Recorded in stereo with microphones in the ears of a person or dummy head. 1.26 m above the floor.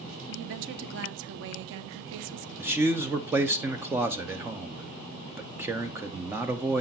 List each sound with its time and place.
0.3 s a woman speaking: 65° right (ahead or behind), 0.7 m
2.6 s a man speaking: 15° right (ahead or behind), 0.5 m